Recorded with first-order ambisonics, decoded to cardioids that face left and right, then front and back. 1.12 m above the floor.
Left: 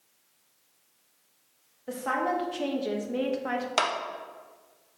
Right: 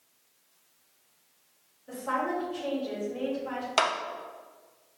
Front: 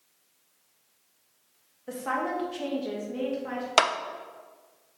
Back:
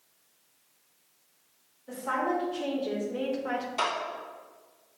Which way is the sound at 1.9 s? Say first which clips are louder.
Left 2 dB, even; 50° left.